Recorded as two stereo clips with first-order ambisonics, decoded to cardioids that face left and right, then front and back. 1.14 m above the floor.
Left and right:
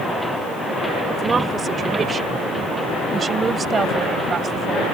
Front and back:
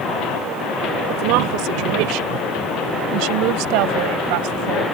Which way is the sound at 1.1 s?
160° right.